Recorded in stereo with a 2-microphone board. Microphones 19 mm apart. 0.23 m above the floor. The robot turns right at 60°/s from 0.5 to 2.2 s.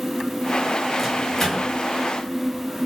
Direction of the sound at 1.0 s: 5° right (ahead or behind).